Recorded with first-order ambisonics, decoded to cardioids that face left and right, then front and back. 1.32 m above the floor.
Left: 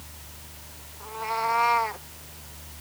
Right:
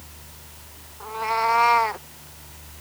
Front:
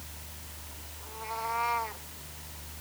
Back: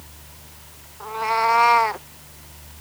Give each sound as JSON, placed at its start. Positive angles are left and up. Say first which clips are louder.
{"t": 1.0, "sound": "a cat meowing", "louder": "right 5 dB, back 16 dB", "azimuth_deg": -160}